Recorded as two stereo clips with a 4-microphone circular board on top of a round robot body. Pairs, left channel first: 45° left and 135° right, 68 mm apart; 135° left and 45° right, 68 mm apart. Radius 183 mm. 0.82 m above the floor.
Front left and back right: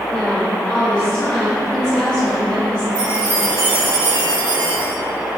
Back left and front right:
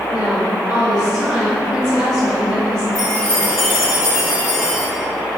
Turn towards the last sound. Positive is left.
turn(degrees=-170)